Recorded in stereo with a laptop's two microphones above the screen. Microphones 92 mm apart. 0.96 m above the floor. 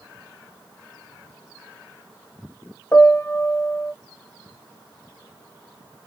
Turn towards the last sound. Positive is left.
turn(degrees=30)  # may be behind; listen again after turning